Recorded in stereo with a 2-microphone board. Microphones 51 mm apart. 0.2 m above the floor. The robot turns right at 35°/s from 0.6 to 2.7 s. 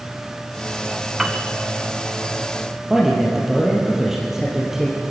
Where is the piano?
5° right (ahead or behind), 1.6 m; by 1.4 s 10° right (ahead or behind), 1.6 m.